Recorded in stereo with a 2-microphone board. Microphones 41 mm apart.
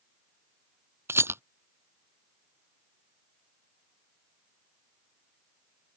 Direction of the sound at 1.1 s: 75° right (ahead or behind).